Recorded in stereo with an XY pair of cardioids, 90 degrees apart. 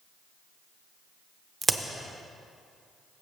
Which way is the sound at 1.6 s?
35° right.